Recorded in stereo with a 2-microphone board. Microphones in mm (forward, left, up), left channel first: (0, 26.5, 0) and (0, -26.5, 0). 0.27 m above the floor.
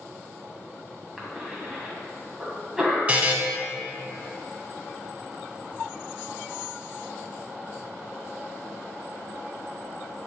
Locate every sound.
1.2 s a cough: 10° right (ahead or behind), 2 m
3.1 s a buzzer: 25° right (ahead or behind), 0.7 m